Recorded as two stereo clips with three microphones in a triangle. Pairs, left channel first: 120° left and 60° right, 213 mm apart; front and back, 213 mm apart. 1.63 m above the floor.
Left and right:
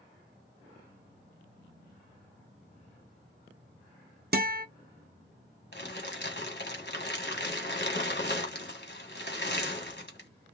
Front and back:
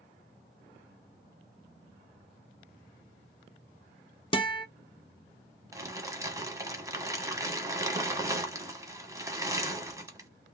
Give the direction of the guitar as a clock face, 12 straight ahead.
2 o'clock.